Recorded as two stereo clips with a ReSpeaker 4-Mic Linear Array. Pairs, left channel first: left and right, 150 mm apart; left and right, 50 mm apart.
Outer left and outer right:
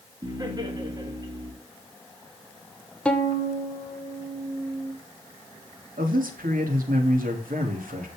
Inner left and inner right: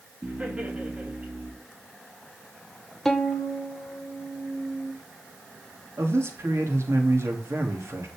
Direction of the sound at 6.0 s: 90° right.